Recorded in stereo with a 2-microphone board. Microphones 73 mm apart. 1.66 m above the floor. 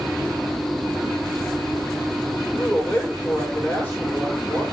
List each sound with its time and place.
2.4 s a man speaking: 20° left (ahead or behind), 7.5 m